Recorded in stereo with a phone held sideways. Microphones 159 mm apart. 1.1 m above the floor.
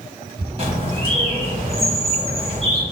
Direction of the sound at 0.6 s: 35° right (ahead or behind).